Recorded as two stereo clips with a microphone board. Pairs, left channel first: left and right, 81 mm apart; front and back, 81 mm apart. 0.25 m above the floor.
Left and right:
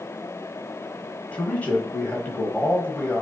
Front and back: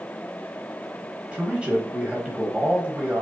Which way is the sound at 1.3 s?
125° left.